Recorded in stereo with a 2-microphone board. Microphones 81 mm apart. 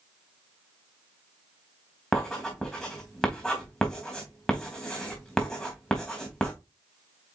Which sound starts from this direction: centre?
Writing, at 2.1 s.